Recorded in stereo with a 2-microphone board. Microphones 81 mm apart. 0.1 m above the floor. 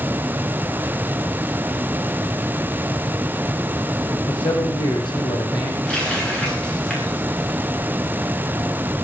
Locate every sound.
4.3 s a man speaking: 75° left (ahead or behind), 5.5 m; by 5.8 s 65° left (ahead or behind), 4.5 m
5.8 s a running tap: 15° left (ahead or behind), 9.5 m